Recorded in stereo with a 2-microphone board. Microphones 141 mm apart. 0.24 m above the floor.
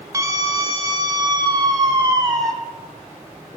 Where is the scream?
25° right (ahead or behind), 1.2 m; by 2.5 s 30° right (ahead or behind), 1.9 m.